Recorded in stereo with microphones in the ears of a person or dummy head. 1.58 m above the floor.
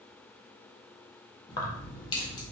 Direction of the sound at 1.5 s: 30° left (ahead or behind).